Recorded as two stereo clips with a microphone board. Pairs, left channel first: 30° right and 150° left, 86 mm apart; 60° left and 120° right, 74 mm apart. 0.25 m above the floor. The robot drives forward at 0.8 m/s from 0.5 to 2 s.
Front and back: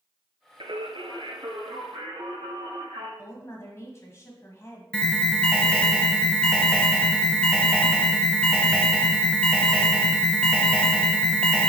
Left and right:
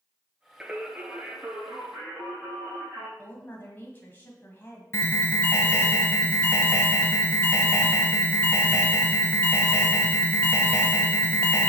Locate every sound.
0.6 s singing: 165° left, 0.7 m; by 3.1 s 175° left, 1.8 m
3.2 s a woman speaking: 15° left, 1.6 m
4.9 s an alarm: 45° left, 0.8 m